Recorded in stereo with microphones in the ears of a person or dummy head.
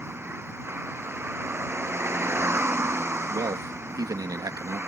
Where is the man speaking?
25° right (ahead or behind).